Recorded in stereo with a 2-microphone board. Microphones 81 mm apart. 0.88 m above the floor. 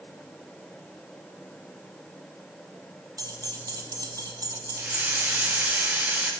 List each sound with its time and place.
3.2 s keys jangling: 45° right (ahead or behind), 0.8 m
4.8 s a hiss: 20° right (ahead or behind), 0.8 m